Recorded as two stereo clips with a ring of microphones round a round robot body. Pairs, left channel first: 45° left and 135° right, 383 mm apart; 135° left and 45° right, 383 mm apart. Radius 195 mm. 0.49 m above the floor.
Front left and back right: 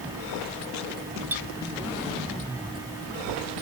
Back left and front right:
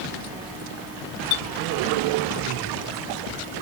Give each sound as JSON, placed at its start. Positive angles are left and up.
{"t": 1.3, "sound": "a clink", "azimuth_deg": 140}